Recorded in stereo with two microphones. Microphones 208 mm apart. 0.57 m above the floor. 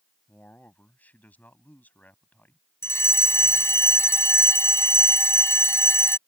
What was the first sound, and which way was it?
A man speaking, 5° left (ahead or behind).